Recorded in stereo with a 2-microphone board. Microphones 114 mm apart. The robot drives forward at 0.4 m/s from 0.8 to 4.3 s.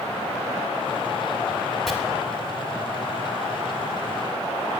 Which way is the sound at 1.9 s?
Centre (ahead or behind).